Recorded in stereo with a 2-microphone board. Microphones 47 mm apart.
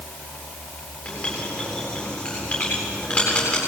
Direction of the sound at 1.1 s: 30° left (ahead or behind).